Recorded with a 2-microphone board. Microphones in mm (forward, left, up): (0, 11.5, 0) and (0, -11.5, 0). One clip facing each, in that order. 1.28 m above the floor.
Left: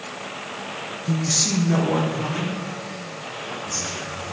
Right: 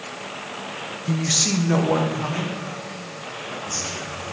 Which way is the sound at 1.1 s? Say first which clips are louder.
Right 1 dB; 30° right (ahead or behind).